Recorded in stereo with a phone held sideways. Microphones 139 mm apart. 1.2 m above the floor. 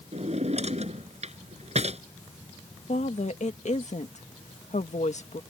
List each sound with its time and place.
0.1 s a drawer: 50° right (ahead or behind)
2.9 s a woman speaking: 55° left (ahead or behind)